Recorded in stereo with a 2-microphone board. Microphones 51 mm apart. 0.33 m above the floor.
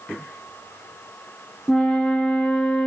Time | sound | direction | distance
1.7 | a flute | 20° left (ahead or behind) | 0.5 m